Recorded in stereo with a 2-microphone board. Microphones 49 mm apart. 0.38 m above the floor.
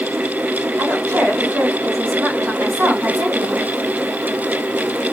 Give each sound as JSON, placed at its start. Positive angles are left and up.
{"t": 0.8, "sound": "a woman speaking", "side_deg": -65, "distance_m": 2.5}